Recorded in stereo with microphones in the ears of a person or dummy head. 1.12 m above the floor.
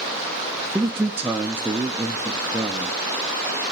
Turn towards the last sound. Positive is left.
turn(degrees=-10)  # may be behind; listen again after turning